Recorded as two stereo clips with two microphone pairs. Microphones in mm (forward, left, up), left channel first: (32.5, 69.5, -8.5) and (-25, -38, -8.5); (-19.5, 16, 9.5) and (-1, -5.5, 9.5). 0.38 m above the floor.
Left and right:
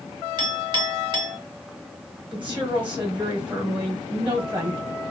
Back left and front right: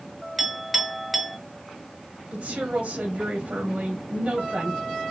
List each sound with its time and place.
0.4 s a clink: 140° right, 0.8 m
2.3 s a woman speaking: 45° right, 1.0 m